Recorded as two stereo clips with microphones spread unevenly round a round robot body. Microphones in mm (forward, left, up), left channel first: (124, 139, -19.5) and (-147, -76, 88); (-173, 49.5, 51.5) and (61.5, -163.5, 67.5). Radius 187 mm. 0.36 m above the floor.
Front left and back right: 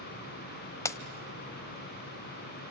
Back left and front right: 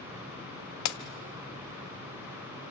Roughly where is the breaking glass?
Left.